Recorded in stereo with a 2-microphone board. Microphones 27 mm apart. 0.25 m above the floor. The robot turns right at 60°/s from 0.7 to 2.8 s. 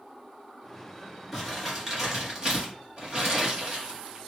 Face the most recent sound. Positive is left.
turn(degrees=-35)  # may be behind; listen again after turning